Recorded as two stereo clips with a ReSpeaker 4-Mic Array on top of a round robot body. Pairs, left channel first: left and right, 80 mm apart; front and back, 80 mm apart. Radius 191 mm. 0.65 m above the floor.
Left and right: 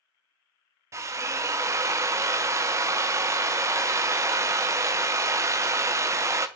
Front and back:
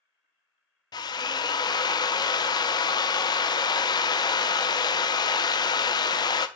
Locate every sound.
0.9 s a drill: 35° right, 0.6 m